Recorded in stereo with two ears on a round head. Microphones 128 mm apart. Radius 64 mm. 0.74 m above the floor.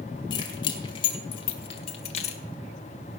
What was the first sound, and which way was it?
Keys jangling, 30° left (ahead or behind).